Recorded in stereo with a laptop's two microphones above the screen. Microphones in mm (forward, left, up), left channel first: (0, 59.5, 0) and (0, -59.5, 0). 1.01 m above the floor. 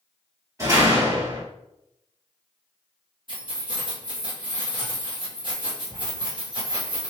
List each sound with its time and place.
0.6 s a door slam: 30° right (ahead or behind), 1.6 m
3.3 s keys jangling: 40° right (ahead or behind), 1.0 m